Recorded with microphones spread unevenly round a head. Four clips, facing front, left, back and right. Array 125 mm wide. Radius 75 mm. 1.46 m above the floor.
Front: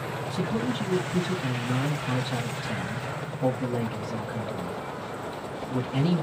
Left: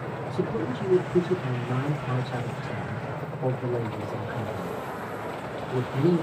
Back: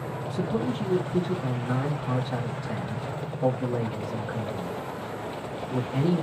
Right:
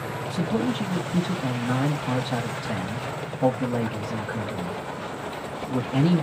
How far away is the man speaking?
About 1.4 m.